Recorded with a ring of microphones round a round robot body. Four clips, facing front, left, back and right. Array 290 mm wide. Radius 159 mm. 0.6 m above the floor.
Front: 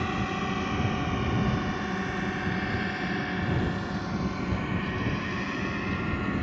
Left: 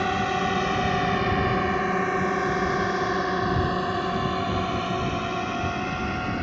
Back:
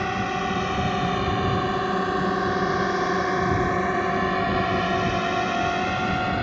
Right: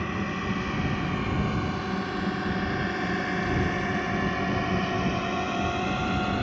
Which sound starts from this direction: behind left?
A drone, at 0.0 s.